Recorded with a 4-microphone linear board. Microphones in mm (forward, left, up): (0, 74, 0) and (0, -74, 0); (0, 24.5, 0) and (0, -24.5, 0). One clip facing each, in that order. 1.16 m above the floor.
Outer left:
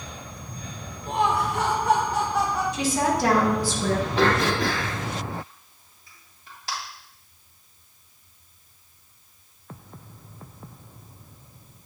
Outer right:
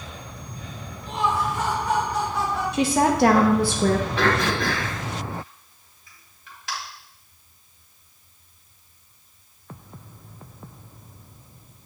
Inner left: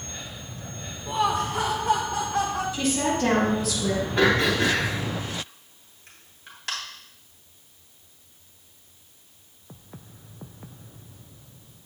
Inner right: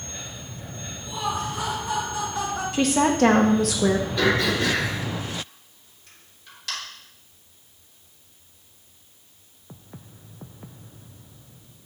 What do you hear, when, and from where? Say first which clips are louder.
1.1 s laughter: outer left 1 dB, inner left 4 dB; 45° left (ahead or behind), 0.9 m; by 2.6 s 80° left, 3 m
2.7 s a woman speaking: outer right 6 dB, inner right 8 dB; 60° right (ahead or behind), 0.9 m
4.2 s throat clearing: outer left 1 dB, inner left 5 dB; 35° left (ahead or behind), 2.5 m